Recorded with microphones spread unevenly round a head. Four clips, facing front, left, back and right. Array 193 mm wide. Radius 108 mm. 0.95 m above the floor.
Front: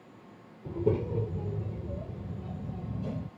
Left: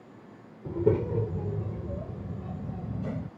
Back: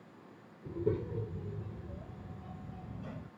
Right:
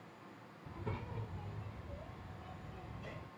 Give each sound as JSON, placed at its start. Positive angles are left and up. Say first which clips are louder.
{"t": 0.7, "sound": "a child speaking", "louder": "left 20 dB, front 5 dB", "azimuth_deg": 85}